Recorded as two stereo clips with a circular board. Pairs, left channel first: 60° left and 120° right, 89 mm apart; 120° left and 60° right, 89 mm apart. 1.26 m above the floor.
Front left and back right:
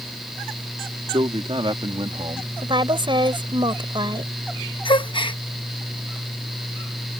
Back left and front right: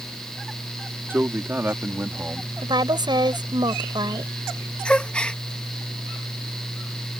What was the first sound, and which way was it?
A man speaking, 125° right.